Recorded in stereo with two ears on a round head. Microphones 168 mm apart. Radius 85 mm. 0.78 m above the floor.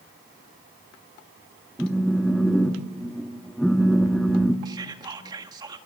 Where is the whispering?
20° right (ahead or behind), 1.6 m.